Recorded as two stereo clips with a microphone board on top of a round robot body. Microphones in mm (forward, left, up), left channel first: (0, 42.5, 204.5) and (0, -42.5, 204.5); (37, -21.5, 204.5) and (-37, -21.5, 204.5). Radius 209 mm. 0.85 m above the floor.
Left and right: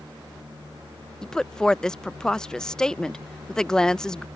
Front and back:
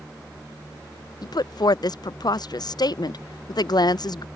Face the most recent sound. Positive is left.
turn(degrees=10)